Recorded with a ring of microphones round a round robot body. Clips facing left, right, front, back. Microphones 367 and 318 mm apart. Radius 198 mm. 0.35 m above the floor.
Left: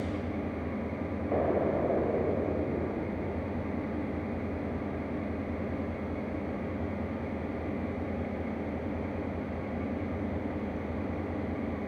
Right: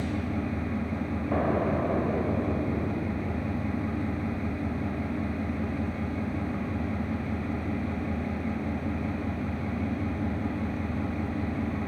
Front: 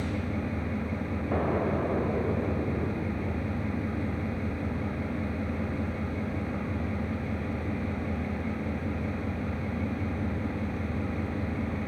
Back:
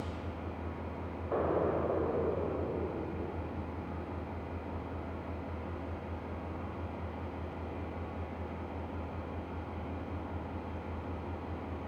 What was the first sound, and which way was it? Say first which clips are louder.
An engine running: right 3 dB, front 10 dB; 30° right.